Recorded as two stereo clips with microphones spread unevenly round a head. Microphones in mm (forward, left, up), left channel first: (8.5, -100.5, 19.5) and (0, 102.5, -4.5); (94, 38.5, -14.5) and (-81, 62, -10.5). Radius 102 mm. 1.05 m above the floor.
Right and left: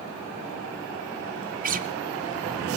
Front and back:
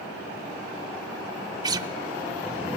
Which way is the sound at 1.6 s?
120° left.